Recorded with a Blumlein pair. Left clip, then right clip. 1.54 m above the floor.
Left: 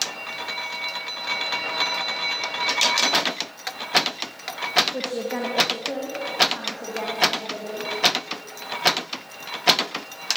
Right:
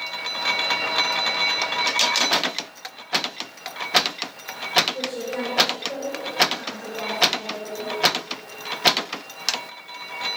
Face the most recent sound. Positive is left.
turn(degrees=25)